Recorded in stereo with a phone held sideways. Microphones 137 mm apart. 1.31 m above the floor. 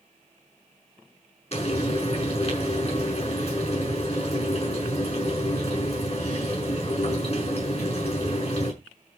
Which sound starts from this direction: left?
Frying, at 1.5 s.